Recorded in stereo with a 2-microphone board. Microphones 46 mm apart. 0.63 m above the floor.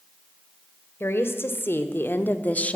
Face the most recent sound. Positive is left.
turn(degrees=25)  # may be behind; listen again after turning